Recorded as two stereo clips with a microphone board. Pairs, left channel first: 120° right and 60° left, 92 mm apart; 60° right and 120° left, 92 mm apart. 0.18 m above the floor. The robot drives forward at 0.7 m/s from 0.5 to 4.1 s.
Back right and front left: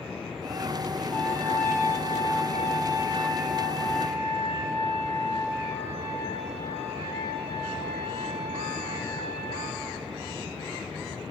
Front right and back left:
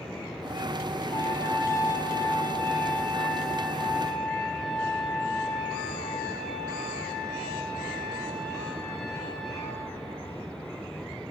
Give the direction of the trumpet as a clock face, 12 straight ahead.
2 o'clock.